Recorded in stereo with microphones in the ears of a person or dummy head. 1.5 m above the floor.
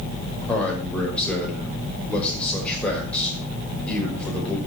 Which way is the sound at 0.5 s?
10° left (ahead or behind).